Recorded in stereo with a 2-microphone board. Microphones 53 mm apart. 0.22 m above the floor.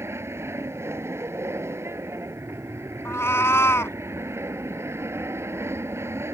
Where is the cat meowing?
60° left (ahead or behind).